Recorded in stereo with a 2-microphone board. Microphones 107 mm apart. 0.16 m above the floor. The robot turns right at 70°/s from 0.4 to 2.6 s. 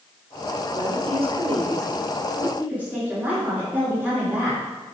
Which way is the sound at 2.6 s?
15° right (ahead or behind).